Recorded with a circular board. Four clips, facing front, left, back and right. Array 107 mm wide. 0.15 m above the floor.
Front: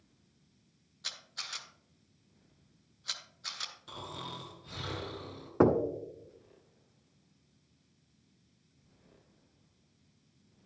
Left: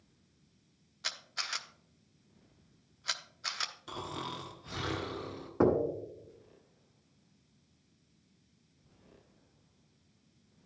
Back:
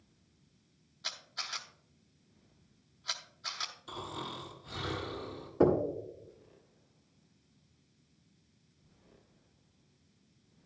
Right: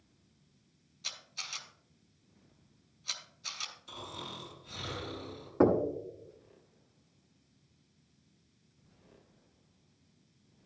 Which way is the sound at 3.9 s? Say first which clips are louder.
Left 5 dB, back 2 dB; 90° left.